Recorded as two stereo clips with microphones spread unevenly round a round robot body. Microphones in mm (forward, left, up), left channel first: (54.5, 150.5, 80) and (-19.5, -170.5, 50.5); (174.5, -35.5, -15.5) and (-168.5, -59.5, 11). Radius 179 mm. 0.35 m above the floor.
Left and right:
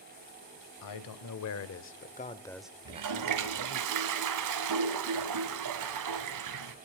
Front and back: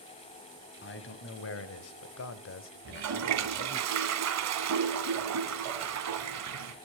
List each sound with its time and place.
0.8 s a man speaking: 60° left, 2 m; by 3.9 s 65° right, 1.9 m
2.9 s a toilet flushing: 130° right, 2 m